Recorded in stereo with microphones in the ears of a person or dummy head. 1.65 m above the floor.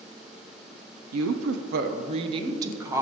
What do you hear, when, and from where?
1.1 s a woman speaking: 80° right, 0.7 m; by 3.0 s 15° right (ahead or behind), 1.5 m